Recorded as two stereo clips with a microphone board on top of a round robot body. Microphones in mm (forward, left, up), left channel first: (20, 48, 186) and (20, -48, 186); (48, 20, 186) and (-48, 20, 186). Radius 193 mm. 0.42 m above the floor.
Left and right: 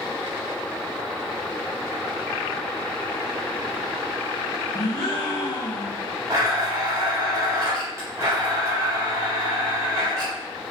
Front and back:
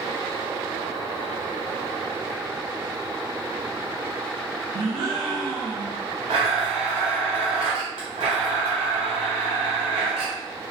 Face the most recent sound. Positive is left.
turn(degrees=-150)